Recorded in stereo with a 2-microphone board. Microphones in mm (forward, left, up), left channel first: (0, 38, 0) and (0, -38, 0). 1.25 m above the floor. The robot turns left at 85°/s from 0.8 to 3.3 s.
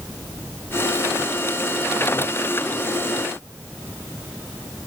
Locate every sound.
Only background noise.